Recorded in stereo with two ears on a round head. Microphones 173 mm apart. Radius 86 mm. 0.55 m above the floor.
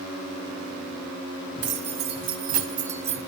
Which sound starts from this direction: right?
Keys jangling, at 1.6 s.